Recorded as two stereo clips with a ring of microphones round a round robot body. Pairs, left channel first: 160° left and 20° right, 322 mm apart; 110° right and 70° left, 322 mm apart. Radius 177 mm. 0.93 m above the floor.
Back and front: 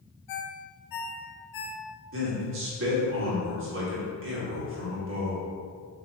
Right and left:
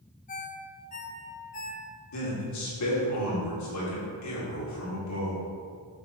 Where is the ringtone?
Straight behind, 1.0 m.